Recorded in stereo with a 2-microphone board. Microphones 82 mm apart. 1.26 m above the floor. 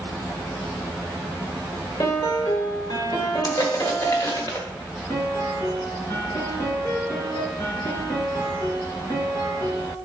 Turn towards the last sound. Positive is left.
turn(degrees=50)  # may be behind; listen again after turning